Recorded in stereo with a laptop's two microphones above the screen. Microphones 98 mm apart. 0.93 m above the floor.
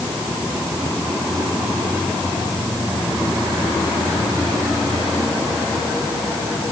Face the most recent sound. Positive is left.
No sound to turn to.